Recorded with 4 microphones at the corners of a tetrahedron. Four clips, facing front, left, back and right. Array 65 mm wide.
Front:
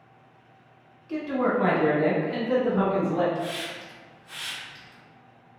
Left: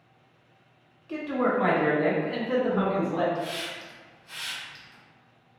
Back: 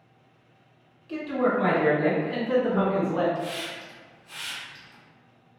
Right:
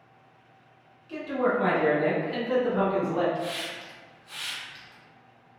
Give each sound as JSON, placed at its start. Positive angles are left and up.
{"t": 1.1, "sound": "a man speaking", "azimuth_deg": 60, "distance_m": 1.4}
{"t": 3.4, "sound": "a hiss", "azimuth_deg": 20, "distance_m": 1.6}